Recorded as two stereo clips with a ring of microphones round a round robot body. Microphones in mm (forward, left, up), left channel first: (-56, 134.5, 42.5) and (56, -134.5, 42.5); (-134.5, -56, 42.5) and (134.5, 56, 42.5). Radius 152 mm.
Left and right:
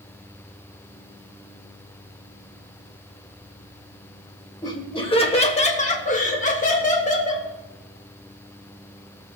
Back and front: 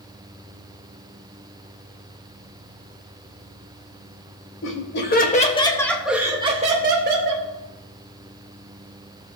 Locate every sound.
4.6 s laughter: 175° right, 1.7 m; by 7.5 s 50° left, 1.8 m